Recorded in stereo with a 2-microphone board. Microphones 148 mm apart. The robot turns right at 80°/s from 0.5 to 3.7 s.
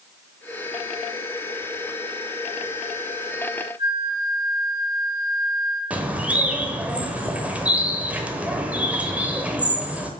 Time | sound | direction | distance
3.8 | a flute | 25° right (ahead or behind) | 4 m
5.9 | a bird | 10° right (ahead or behind) | 1.2 m